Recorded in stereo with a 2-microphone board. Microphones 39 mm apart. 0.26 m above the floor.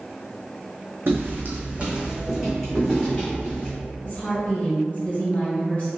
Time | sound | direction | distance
1.1 | footsteps | 65° right (ahead or behind) | 1.1 m
4.0 | a woman speaking | 30° left (ahead or behind) | 1.9 m